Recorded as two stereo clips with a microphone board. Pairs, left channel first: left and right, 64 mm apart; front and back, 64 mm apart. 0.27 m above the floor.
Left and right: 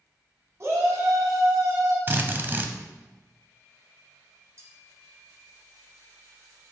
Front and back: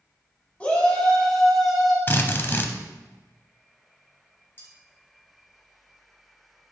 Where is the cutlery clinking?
50° right, 3.5 m.